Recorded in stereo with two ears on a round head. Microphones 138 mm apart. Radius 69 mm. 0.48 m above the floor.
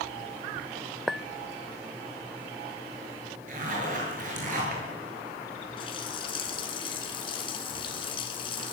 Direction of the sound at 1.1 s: Centre (ahead or behind).